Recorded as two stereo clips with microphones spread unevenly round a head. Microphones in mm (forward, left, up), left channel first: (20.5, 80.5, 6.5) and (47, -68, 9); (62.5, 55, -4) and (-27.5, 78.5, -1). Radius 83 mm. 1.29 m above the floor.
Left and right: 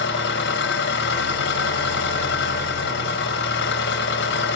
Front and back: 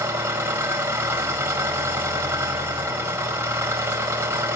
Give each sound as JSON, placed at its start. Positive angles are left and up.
{"t": 0.0, "sound": "an engine running", "azimuth_deg": 100, "distance_m": 6.0}